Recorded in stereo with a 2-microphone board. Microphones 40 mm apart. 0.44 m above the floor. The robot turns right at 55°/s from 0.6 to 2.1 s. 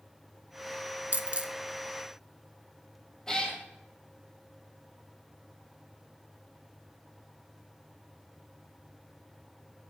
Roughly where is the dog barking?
I don't hear a dog barking.